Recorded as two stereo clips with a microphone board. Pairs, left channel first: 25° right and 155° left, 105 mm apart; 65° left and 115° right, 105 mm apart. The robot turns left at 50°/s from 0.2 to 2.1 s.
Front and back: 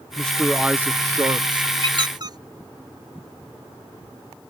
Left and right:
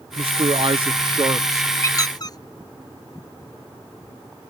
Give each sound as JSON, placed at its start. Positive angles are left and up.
{"t": 0.2, "sound": "a man speaking", "azimuth_deg": -100}
{"t": 1.8, "sound": "a squeak", "azimuth_deg": 130}